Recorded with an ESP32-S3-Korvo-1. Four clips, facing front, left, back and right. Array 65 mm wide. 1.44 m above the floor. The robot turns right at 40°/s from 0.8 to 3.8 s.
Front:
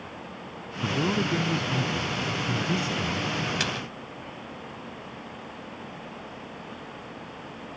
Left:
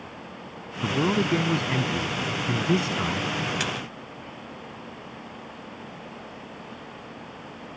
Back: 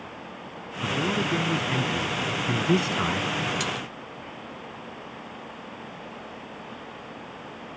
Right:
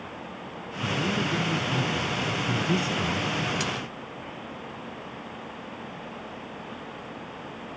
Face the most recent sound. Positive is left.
turn(degrees=50)